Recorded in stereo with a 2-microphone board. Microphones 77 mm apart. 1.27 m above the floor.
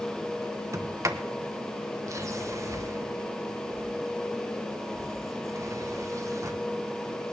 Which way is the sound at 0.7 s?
45° right (ahead or behind).